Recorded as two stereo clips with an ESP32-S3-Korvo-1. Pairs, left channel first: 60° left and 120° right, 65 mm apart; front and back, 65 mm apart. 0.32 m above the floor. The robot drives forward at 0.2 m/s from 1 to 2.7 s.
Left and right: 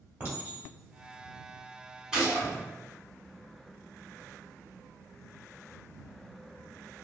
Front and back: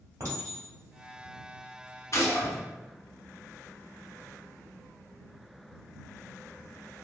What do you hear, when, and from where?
0.2 s a clink: 175° right, 1.5 m
2.1 s a gunshot: 40° right, 1.1 m; by 2.5 s 45° right, 1.0 m